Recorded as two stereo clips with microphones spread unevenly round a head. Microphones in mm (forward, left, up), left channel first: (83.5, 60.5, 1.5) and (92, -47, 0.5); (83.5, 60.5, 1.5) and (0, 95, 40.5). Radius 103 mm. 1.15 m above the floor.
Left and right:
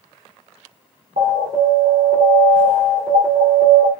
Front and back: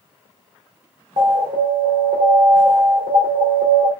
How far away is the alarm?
About 3 m.